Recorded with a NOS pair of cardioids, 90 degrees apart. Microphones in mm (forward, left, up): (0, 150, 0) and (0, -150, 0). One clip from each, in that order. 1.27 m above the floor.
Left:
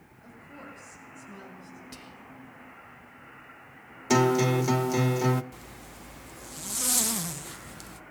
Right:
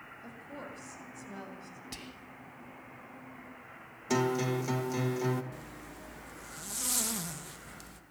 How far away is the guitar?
About 1.1 m.